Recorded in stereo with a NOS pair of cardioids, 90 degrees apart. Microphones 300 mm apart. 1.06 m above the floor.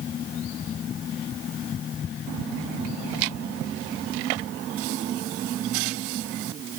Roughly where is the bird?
I don't hear a bird.